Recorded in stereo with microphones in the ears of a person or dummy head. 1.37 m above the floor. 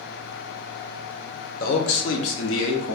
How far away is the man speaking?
About 1.1 m.